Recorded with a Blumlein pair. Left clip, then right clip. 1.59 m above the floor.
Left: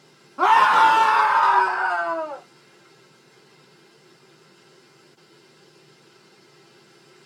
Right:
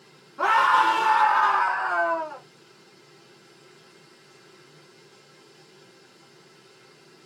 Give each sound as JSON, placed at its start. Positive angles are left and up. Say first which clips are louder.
{"t": 0.4, "sound": "a scream", "louder": "left 4 dB", "azimuth_deg": 25, "distance_m": 1.0}